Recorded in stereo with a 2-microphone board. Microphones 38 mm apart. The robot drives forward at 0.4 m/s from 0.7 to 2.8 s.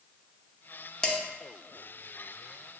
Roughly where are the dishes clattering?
Centre.